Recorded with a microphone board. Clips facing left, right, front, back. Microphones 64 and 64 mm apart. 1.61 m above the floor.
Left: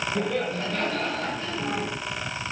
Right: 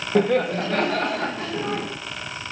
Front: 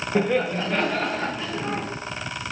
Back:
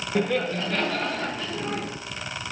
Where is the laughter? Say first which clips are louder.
Right 11 dB, front 2 dB; 75° right, 1.0 m; by 1.9 s 70° right, 2.0 m.